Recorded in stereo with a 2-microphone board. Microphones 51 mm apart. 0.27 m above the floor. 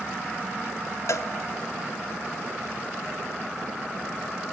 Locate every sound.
1.1 s a cowbell: 70° left (ahead or behind), 0.6 m